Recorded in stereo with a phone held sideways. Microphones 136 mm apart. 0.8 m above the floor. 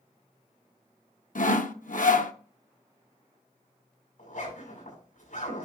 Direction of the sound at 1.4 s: 70° left (ahead or behind).